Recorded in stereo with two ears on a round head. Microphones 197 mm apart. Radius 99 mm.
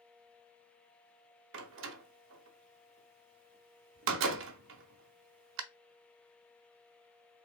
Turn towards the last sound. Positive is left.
turn(degrees=-55)  # may be behind; listen again after turning